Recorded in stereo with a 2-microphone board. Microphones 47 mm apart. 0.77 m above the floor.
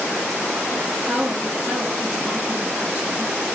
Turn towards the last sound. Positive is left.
turn(degrees=-25)  # may be behind; listen again after turning